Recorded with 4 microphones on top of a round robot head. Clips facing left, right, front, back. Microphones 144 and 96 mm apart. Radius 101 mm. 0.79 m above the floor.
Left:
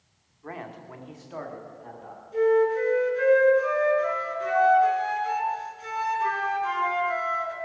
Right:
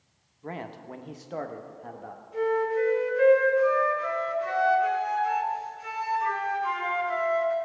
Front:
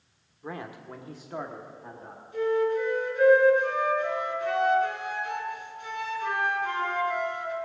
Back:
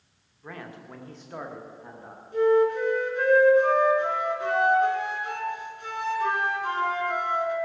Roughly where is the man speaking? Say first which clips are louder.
Right 1 dB, front 3 dB; ahead right.